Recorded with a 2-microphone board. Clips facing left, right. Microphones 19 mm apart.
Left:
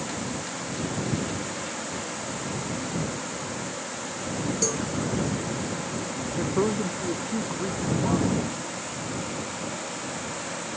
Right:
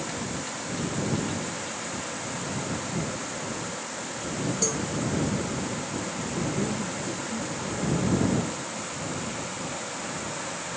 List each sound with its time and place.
4.6 s a cowbell: 5° right (ahead or behind)
6.4 s a woman speaking: 70° left (ahead or behind)